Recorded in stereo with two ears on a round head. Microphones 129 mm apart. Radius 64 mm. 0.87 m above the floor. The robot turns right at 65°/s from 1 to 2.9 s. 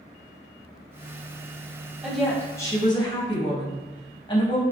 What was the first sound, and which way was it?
A woman speaking, 10° right.